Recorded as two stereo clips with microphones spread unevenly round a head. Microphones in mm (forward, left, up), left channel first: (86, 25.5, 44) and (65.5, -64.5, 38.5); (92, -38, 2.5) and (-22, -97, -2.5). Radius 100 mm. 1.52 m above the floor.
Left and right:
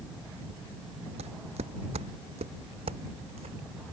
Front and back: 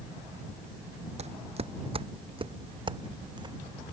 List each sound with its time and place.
1.2 s footsteps: 120° right; by 3.6 s 95° right